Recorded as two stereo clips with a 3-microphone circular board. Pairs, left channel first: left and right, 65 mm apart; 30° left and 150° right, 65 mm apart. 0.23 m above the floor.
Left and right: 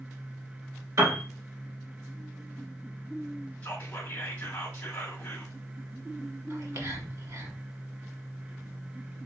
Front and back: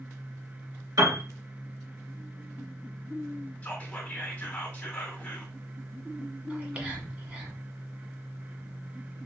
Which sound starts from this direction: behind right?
A piano, at 1.0 s.